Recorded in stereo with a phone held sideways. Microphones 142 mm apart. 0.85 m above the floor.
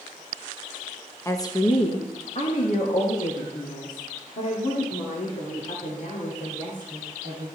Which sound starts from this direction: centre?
A woman speaking, at 1.2 s.